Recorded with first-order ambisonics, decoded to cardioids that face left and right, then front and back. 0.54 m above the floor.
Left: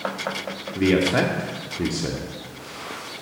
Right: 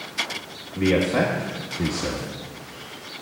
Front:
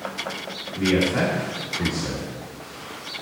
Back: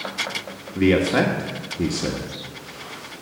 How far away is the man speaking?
About 1.3 m.